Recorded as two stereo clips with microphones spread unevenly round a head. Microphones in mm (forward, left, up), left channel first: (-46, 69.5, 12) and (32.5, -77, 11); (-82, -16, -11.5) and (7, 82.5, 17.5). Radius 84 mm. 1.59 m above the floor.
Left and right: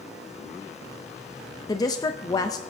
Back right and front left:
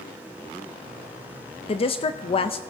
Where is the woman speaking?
175° right, 0.5 m.